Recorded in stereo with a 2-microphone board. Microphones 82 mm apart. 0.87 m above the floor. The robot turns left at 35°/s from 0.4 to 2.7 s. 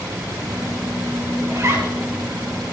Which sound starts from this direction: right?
A zipper, at 1.5 s.